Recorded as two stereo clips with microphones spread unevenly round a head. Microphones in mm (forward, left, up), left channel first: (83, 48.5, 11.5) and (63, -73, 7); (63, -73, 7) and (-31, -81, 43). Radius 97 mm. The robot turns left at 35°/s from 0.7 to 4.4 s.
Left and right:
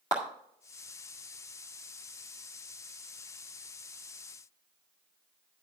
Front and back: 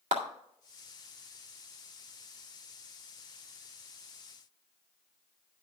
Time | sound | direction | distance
0.1 | a clap | 155° left | 1.6 m